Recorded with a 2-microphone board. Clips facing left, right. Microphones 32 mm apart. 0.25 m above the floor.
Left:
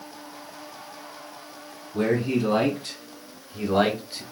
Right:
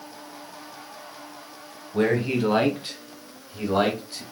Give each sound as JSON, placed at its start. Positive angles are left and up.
{"t": 1.9, "sound": "a man speaking", "side_deg": -45, "distance_m": 1.3}